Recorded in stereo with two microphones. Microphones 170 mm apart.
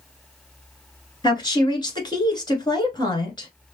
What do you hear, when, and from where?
1.2 s a woman speaking: 25° left (ahead or behind), 1.2 m